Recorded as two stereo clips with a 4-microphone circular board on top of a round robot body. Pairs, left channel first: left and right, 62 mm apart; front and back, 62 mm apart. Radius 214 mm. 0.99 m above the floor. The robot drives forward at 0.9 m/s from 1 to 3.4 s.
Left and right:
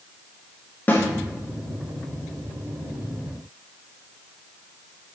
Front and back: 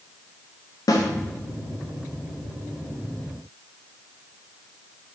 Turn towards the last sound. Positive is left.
turn(degrees=160)